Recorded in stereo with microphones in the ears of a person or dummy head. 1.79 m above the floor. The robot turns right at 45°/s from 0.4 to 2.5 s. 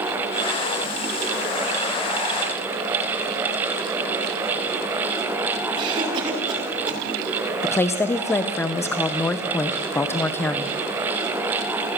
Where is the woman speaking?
10° left (ahead or behind), 1.1 m.